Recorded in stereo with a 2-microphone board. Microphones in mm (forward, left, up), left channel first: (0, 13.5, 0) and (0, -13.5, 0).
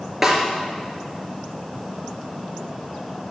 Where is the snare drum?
10° right (ahead or behind), 3 m.